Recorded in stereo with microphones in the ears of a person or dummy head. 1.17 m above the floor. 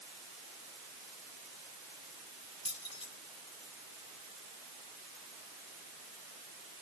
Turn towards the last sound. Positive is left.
turn(degrees=30)  # may be behind; listen again after turning